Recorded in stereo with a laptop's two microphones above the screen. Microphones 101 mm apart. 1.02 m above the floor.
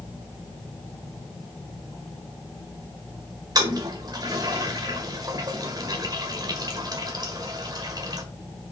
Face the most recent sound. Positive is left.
turn(degrees=-40)  # may be behind; listen again after turning